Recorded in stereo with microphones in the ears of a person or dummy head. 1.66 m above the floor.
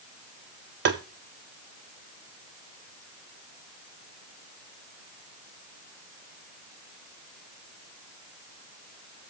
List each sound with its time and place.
0.8 s tapping: 45° right (ahead or behind), 0.7 m